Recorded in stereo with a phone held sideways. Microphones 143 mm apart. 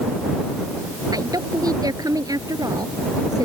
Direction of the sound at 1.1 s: 25° right (ahead or behind).